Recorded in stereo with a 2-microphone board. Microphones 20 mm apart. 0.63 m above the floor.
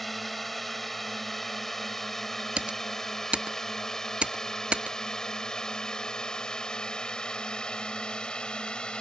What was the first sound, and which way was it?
A drone, 5° left (ahead or behind).